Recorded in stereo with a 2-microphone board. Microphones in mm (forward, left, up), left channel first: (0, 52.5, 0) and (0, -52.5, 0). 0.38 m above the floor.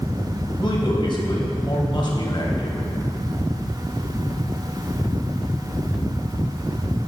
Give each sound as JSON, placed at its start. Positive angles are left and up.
{"t": 0.6, "sound": "a man speaking", "side_deg": 50, "distance_m": 2.0}